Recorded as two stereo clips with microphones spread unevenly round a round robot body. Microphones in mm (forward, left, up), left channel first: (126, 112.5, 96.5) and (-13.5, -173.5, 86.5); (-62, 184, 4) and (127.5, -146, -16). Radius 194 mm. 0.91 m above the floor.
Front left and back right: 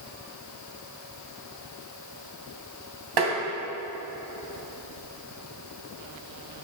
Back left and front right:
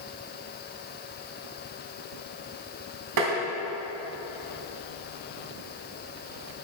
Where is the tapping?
110° right, 3 m.